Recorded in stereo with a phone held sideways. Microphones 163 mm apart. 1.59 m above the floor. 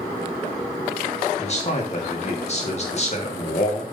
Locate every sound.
1.4 s a man speaking: 45° left (ahead or behind), 1.6 m